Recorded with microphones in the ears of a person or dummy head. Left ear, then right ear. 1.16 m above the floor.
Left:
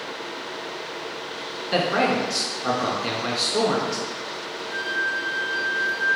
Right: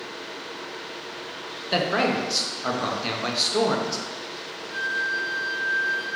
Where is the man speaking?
15° right (ahead or behind), 0.5 m.